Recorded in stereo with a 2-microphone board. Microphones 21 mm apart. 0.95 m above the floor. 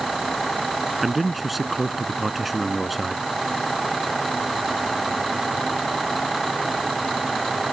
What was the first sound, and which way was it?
A man speaking, 5° right (ahead or behind).